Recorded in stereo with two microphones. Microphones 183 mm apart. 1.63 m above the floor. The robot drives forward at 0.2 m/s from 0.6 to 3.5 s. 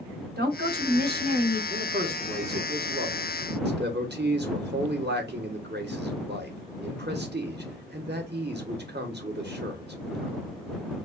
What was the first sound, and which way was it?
A woman speaking, 60° right (ahead or behind).